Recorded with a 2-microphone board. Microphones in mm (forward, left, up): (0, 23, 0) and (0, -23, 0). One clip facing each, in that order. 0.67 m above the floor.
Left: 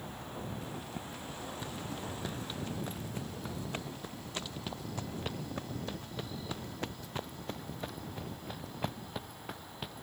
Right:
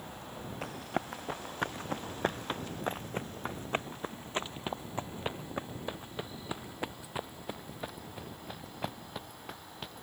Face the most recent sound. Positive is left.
turn(degrees=5)  # may be behind; listen again after turning